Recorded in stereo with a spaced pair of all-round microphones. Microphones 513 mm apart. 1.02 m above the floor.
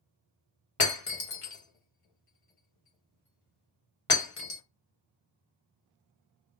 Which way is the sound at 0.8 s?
85° left.